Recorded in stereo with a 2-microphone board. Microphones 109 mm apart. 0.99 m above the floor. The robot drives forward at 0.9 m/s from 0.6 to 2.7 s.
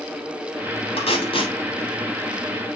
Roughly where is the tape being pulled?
Left.